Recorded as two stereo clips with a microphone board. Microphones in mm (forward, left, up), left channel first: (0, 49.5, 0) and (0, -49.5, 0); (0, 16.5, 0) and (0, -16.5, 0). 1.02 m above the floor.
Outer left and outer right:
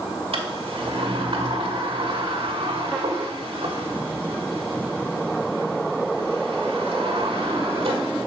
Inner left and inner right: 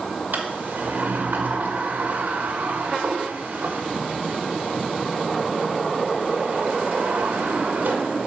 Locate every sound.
0.3 s a sliding door: 70° right (ahead or behind), 1.3 m